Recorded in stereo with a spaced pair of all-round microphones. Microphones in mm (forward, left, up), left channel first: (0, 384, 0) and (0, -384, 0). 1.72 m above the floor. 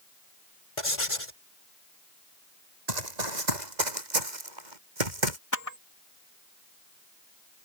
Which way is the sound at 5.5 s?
20° left (ahead or behind).